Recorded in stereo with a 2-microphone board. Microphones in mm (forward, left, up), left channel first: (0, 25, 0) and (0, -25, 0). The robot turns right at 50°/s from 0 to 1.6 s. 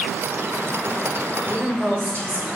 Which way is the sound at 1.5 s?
45° right (ahead or behind).